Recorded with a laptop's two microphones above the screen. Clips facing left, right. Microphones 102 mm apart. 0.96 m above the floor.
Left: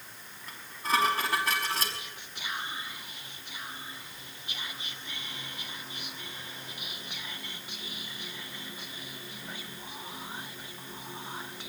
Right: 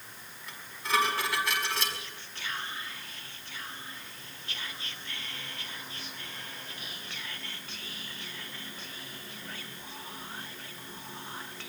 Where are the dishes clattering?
40° left (ahead or behind), 5.5 m.